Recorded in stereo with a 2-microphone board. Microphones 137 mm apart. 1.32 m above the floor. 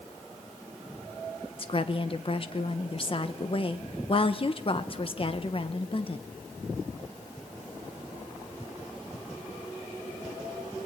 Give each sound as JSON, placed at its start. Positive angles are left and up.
{"t": 1.6, "sound": "a woman speaking", "side_deg": 40, "distance_m": 1.1}